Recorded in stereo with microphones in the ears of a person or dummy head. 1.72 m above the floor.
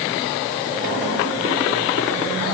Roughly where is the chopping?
I don't hear chopping.